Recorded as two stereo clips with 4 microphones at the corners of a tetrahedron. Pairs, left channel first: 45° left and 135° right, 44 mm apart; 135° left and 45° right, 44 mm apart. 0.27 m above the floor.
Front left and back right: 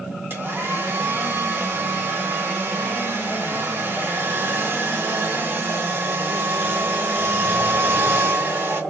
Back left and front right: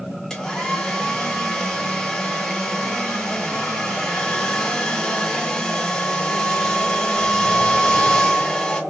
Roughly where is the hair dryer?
Behind right.